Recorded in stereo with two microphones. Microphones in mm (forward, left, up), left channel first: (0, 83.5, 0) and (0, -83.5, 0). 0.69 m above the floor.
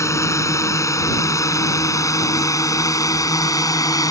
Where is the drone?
20° left (ahead or behind).